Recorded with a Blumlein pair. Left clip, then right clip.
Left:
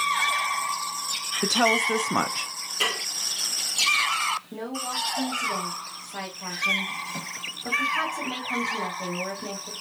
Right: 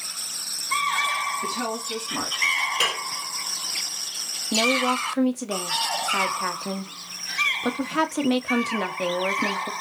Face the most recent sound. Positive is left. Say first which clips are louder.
# right 10 dB
turn(degrees=-30)